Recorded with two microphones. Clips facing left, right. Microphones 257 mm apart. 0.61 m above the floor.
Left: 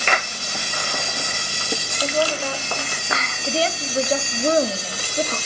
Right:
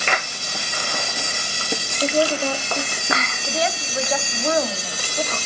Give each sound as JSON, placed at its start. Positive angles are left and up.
{"t": 2.0, "sound": "a woman speaking", "side_deg": -20, "distance_m": 1.0}
{"t": 3.5, "sound": "a woman speaking", "side_deg": 30, "distance_m": 1.1}